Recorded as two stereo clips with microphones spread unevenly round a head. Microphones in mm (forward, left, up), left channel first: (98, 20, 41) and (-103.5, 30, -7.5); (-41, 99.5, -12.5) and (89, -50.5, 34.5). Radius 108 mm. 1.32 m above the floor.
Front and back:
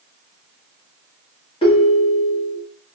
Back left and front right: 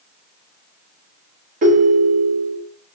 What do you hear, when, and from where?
1.6 s a ringtone: 45° right, 0.7 m